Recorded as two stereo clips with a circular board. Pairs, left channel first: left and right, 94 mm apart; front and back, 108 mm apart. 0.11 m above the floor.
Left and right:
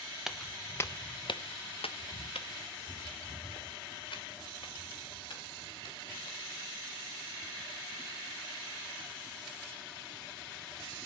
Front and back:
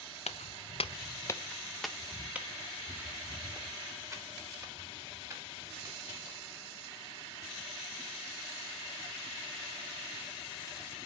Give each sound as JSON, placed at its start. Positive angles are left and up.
{"t": 0.3, "sound": "footsteps", "azimuth_deg": -5, "distance_m": 0.8}